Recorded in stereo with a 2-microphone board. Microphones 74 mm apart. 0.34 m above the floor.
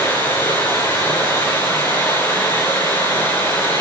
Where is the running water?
30° left (ahead or behind), 9.5 m.